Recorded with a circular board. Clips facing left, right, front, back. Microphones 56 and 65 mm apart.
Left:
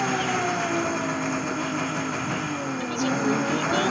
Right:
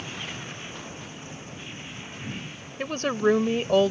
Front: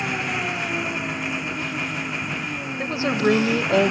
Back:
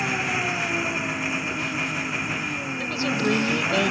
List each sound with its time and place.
0.0 s an engine running: 90° left
2.8 s a woman speaking: 50° right